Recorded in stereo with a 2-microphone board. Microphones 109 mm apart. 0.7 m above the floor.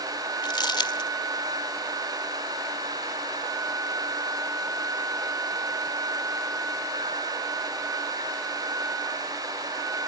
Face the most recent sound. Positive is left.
turn(degrees=45)  # may be behind; listen again after turning